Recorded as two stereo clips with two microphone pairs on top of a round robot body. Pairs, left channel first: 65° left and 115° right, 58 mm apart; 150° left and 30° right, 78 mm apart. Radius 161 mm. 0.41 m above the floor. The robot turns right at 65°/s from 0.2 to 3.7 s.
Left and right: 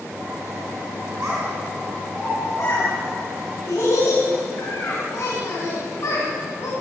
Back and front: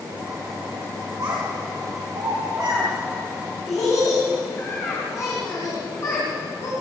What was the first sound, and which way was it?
A child speaking, 60° right.